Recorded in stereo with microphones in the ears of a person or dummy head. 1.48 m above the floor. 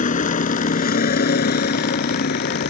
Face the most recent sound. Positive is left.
turn(degrees=70)  # may be behind; listen again after turning